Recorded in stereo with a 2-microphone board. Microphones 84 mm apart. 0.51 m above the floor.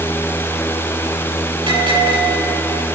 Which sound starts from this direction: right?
A bell, at 1.7 s.